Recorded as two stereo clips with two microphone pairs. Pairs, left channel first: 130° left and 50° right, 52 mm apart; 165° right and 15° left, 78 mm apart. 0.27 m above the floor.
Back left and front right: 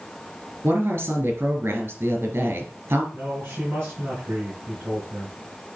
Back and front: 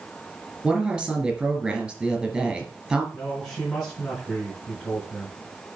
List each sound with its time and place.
0.6 s a woman speaking: 65° right, 2.5 m
3.1 s a man speaking: 85° right, 4 m